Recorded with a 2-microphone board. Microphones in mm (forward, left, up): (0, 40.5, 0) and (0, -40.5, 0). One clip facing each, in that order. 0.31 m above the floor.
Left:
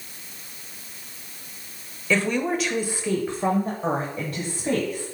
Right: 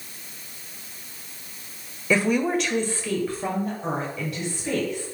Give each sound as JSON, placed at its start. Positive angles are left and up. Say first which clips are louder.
{"t": 2.1, "sound": "a woman speaking", "louder": "right 2 dB", "side_deg": -15, "distance_m": 1.1}